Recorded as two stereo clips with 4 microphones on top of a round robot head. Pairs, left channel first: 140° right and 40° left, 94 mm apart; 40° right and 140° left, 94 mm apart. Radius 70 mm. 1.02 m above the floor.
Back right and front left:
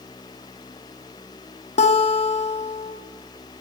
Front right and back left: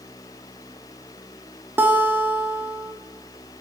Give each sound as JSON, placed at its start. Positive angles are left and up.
{"t": 1.8, "sound": "a guitar", "azimuth_deg": -150, "distance_m": 1.2}